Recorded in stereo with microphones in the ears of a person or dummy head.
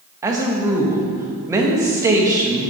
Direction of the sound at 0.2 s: 15° right (ahead or behind).